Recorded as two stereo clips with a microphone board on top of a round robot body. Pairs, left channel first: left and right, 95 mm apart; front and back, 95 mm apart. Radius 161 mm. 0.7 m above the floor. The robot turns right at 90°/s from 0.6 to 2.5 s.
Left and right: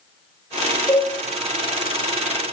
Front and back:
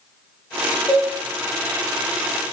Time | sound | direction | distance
0.9 | a cowbell | 85° right | 0.8 m